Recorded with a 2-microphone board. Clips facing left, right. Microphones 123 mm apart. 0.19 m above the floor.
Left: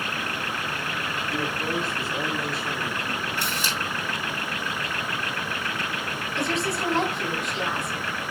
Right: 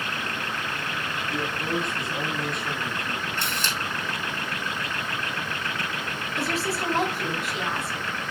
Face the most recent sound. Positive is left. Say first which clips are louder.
# left 1 dB
turn(degrees=0)  # may be behind; listen again after turning